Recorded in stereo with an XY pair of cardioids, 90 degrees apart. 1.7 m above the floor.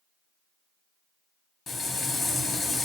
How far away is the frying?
About 1.2 m.